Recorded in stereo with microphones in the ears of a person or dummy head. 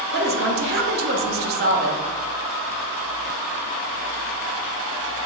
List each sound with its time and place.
0.1 s a woman speaking: 45° right (ahead or behind), 0.6 m